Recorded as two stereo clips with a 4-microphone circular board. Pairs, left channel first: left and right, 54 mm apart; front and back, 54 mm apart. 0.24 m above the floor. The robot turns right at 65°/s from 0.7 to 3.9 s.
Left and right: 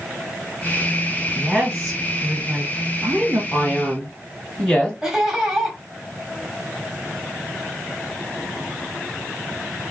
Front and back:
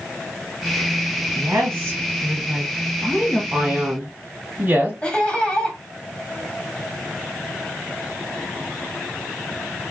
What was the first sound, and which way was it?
A woman speaking, 145° left.